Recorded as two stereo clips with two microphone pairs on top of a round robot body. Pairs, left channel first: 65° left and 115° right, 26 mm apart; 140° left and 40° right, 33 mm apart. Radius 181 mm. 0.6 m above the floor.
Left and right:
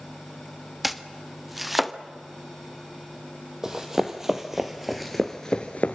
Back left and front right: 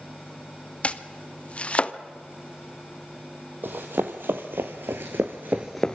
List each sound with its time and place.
0.8 s chopping: 155° left, 1.3 m
3.6 s running footsteps: 50° right, 1.7 m; by 6.0 s 75° left, 0.6 m